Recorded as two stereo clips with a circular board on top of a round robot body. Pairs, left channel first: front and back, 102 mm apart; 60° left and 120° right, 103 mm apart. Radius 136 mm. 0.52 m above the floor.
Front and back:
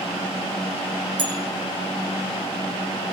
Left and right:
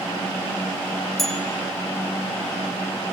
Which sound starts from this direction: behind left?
A bell, at 1.2 s.